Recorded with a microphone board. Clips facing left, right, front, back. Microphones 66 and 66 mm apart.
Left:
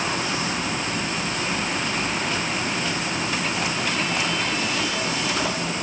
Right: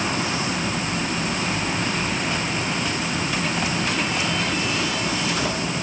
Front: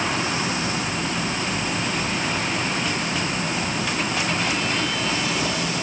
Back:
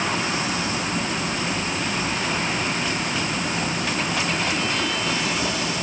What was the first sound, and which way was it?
Only background noise.